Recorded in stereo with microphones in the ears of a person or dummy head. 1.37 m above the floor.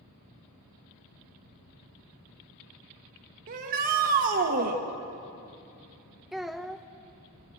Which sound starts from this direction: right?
A shout, at 3.5 s.